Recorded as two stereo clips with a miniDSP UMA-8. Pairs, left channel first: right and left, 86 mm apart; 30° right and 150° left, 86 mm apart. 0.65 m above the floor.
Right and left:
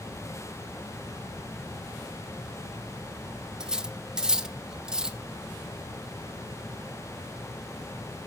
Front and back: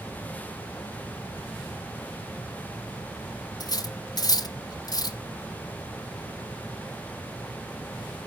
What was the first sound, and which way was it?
Cutlery clinking, 10° left.